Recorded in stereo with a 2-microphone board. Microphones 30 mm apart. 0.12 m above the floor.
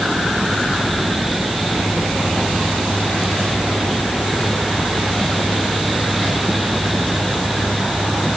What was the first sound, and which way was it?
Only background noise.